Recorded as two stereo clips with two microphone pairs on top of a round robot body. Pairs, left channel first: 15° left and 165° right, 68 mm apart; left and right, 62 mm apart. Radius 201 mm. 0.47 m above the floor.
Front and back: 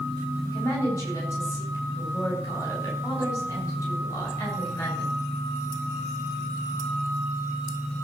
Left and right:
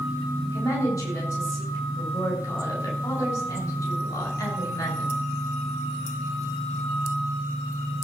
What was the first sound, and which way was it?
A woman speaking, 60° left.